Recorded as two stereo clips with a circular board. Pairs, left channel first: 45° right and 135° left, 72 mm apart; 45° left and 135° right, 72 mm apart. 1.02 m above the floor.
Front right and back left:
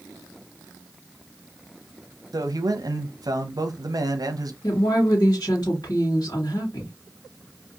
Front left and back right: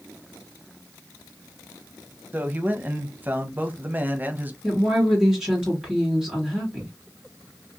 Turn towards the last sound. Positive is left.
turn(degrees=-55)